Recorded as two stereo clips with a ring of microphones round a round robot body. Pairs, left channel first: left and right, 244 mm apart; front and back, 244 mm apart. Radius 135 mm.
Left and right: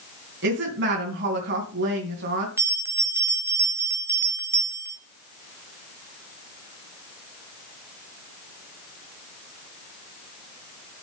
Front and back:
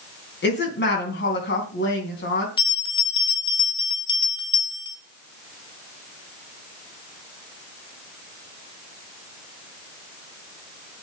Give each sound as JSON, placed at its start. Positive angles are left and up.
{"t": 0.4, "sound": "a woman speaking", "azimuth_deg": -40, "distance_m": 3.0}
{"t": 2.6, "sound": "a bell", "azimuth_deg": -25, "distance_m": 1.5}